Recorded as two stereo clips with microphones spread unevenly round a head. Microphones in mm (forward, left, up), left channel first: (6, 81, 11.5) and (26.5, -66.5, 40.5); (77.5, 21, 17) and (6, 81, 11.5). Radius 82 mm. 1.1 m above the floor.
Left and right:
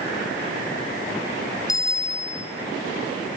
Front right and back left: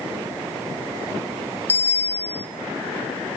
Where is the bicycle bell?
30° left, 2.5 m.